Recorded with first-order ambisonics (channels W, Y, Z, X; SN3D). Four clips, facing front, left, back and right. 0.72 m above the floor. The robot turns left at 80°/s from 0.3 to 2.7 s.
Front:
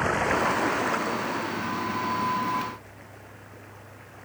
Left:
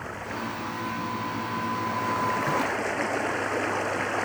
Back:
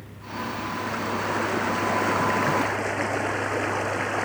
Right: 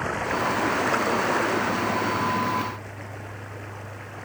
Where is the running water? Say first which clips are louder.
Right 8 dB, front 11 dB; 25° right; by 4.2 s 145° left.